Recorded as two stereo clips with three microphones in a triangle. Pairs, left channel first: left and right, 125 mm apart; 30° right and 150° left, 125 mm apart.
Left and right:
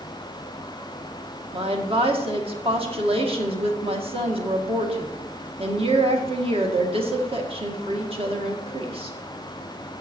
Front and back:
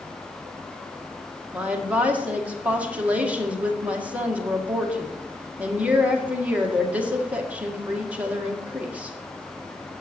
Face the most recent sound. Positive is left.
turn(degrees=-130)